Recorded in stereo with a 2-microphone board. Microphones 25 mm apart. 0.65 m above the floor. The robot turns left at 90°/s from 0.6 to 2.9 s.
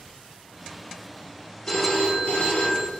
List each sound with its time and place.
1.7 s a phone ringing: 155° left, 0.6 m; by 2.9 s 40° left, 0.6 m